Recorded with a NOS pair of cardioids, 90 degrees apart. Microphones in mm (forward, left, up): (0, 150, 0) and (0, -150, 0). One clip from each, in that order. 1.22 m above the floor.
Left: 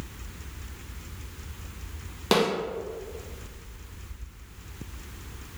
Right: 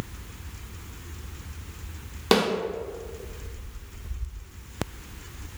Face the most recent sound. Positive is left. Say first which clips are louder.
# right 1 dB
turn(degrees=-10)